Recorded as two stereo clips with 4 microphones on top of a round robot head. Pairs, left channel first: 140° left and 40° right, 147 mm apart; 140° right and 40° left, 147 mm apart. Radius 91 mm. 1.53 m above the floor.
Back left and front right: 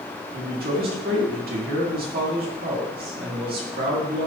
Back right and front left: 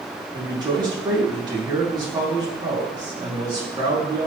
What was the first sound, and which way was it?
A man speaking, 20° right.